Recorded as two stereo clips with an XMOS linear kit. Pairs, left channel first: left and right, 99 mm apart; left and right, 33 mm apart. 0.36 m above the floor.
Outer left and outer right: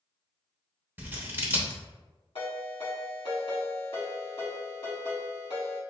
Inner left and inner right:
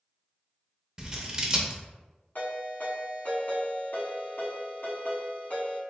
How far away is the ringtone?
About 1.4 m.